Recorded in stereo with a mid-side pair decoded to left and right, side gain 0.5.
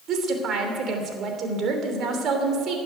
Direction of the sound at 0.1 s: 60° right.